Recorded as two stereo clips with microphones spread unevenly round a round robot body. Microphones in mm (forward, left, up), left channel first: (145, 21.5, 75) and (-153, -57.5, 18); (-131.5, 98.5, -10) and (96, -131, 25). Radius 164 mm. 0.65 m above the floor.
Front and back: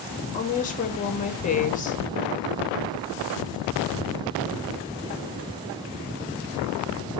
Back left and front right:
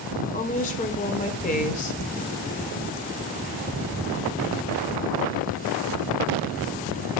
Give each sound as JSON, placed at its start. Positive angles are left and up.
{"t": 0.3, "sound": "a woman speaking", "azimuth_deg": 85, "distance_m": 0.9}